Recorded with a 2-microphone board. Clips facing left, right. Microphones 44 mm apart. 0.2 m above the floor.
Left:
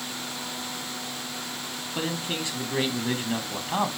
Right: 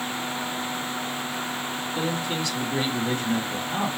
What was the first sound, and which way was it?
A man speaking, 30° left (ahead or behind).